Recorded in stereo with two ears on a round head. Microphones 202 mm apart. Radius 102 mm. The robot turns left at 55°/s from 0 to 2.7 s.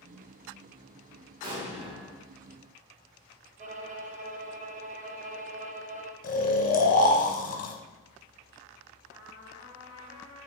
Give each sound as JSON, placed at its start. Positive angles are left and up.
{"t": 1.4, "sound": "an explosion", "azimuth_deg": -110, "distance_m": 1.3}
{"t": 3.6, "sound": "a violin", "side_deg": -35, "distance_m": 0.5}
{"t": 6.2, "sound": "snoring", "side_deg": 40, "distance_m": 0.8}
{"t": 9.1, "sound": "a trumpet", "side_deg": -20, "distance_m": 2.0}